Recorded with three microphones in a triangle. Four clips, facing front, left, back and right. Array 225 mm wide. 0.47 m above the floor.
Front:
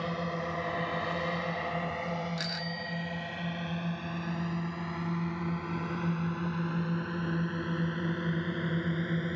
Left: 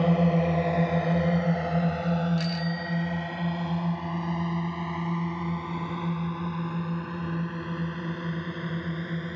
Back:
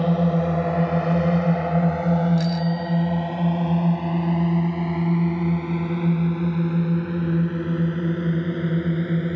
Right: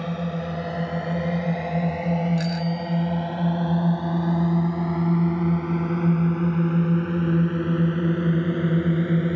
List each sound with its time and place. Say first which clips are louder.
0.0 s a drone: left 5 dB, back 13 dB; 155° left; by 9.4 s 120° right
2.4 s a bicycle bell: right 4 dB, back 14 dB; 20° left